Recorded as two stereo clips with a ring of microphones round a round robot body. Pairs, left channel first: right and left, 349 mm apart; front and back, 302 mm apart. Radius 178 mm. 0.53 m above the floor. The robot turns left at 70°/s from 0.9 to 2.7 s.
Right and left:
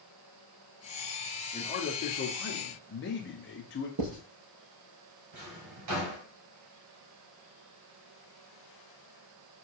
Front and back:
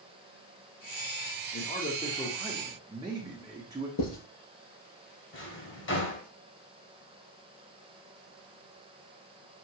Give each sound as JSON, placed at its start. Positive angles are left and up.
{"t": 1.5, "sound": "a man speaking", "azimuth_deg": -30, "distance_m": 0.7}
{"t": 4.0, "sound": "writing", "azimuth_deg": 40, "distance_m": 3.5}
{"t": 5.3, "sound": "a drawer", "azimuth_deg": 50, "distance_m": 1.7}